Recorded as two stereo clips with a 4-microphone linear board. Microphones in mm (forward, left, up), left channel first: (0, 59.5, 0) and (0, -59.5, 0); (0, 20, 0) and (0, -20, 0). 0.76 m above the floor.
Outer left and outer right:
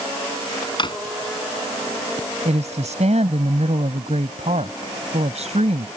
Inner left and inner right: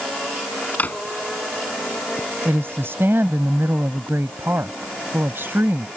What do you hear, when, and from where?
0.8 s a drawer: 45° left (ahead or behind)
2.5 s a woman speaking: 80° right